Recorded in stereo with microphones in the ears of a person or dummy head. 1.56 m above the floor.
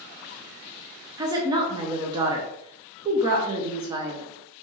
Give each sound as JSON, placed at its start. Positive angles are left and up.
{"t": 1.2, "sound": "a woman speaking", "side_deg": -25, "distance_m": 0.7}